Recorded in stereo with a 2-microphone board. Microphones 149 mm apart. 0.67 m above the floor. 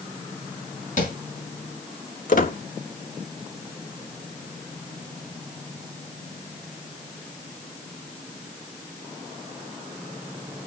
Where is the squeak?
60° left (ahead or behind), 0.9 m.